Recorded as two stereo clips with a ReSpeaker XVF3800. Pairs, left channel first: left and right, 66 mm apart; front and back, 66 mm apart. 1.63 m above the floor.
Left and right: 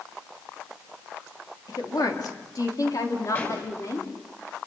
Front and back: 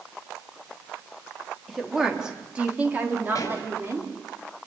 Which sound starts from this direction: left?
A woman speaking, at 1.7 s.